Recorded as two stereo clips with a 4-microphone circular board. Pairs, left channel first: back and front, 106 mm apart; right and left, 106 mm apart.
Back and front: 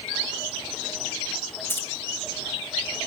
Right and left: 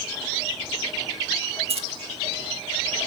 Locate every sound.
1.7 s keys jangling: 110° left, 1.2 m